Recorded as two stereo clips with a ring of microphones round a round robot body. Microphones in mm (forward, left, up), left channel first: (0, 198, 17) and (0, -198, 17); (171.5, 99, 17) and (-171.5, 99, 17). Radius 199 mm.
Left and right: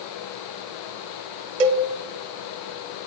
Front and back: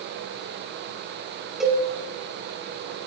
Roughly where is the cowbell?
Right.